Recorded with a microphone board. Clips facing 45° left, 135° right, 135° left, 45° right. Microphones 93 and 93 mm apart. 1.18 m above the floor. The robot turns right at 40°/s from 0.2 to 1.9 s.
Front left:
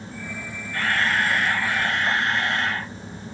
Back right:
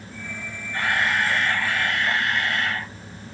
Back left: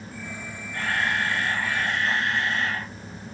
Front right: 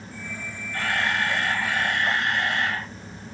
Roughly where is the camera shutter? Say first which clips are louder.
Even, front right 1 dB; ahead right.